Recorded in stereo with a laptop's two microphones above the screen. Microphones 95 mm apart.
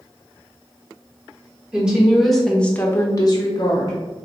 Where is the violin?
I don't hear a violin.